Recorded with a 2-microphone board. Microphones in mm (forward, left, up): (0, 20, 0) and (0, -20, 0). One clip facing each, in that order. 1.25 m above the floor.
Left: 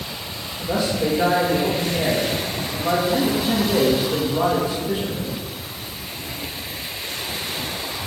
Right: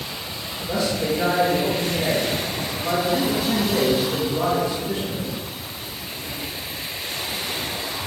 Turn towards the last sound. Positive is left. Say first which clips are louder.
# left 2 dB
turn(degrees=30)  # may be behind; listen again after turning